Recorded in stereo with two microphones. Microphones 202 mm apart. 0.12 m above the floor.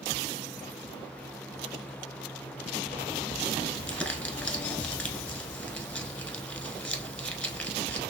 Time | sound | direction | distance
3.7 | crumpling | 5° left (ahead or behind) | 1.1 m